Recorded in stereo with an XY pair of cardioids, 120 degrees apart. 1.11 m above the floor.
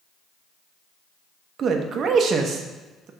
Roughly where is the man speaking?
Ahead right.